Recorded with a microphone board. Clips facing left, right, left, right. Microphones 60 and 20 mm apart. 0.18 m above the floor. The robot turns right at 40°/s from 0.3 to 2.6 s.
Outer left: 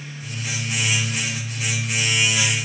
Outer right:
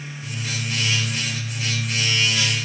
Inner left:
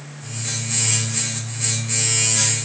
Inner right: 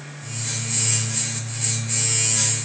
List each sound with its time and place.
Only background noise.